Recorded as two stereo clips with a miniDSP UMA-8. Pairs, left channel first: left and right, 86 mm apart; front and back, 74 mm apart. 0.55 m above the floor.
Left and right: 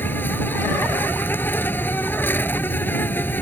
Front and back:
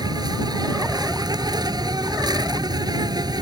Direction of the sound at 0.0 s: 155° left.